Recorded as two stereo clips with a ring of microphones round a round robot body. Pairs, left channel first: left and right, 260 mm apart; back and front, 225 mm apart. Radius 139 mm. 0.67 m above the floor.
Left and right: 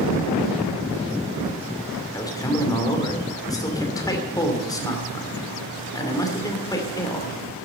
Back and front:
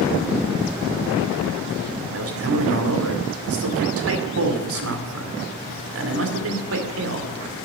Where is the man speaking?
15° left, 2.5 m.